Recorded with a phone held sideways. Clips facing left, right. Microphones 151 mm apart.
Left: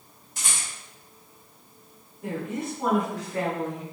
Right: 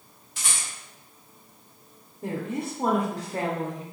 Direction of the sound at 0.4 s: 45° left (ahead or behind).